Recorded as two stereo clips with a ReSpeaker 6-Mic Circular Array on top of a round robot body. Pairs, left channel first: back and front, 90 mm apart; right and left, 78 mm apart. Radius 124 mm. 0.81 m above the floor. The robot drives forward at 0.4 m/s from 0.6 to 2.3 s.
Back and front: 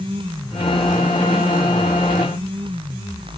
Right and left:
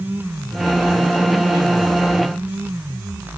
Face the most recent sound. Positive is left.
No sound to turn to.